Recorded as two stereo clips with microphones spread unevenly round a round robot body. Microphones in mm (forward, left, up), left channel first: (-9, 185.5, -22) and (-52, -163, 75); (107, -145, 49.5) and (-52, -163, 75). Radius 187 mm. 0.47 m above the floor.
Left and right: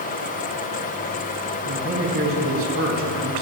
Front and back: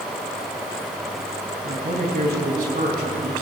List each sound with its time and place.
1.6 s a man speaking: 155° right, 3.5 m